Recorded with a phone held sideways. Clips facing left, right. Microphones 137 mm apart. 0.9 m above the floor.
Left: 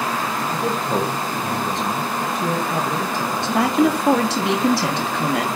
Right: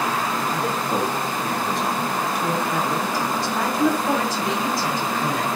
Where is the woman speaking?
75° left (ahead or behind), 1.0 m.